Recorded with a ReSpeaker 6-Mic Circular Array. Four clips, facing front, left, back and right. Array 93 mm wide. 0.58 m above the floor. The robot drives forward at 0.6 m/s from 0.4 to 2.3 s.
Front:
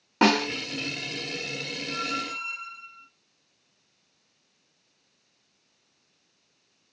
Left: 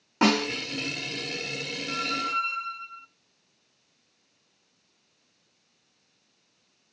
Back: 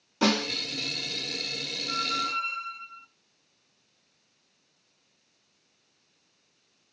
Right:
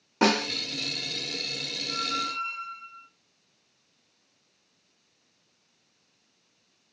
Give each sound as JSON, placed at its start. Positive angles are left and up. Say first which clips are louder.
{"t": 0.2, "sound": "a snare drum", "louder": "left 1 dB, front 4 dB", "azimuth_deg": 0, "distance_m": 1.9}
{"t": 1.9, "sound": "a squeak", "louder": "left 2 dB, back 3 dB", "azimuth_deg": 125, "distance_m": 0.5}